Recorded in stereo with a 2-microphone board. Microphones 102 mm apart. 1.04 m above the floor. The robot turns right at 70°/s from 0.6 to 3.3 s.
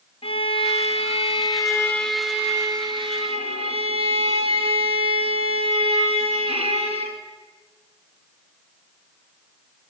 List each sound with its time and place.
0.2 s a violin: 70° left, 1.5 m; by 7.2 s 100° right, 1.5 m